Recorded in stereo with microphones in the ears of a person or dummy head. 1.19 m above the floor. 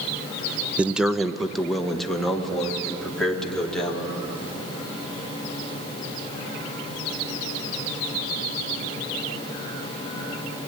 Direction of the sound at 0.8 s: 10° right (ahead or behind).